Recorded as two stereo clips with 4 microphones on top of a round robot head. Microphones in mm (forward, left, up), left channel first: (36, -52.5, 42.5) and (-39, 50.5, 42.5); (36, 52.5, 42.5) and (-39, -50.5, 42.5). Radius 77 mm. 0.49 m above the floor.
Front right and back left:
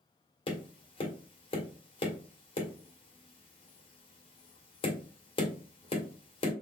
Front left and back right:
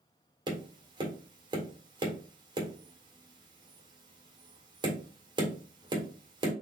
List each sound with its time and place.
0.5 s tapping: 80° right, 1.6 m